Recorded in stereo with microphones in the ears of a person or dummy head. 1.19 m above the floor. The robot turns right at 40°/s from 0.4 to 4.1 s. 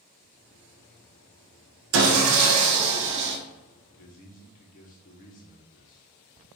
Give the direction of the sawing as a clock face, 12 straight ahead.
4 o'clock.